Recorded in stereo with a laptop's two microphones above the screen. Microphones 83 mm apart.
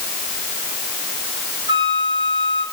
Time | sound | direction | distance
1.7 | a flute | 85° right | 4.5 m